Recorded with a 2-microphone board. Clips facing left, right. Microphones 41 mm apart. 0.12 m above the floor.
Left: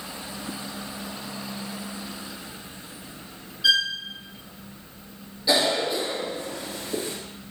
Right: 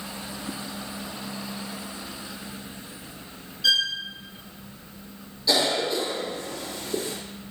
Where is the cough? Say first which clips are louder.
Left 1 dB; 25° left (ahead or behind), 2.5 m.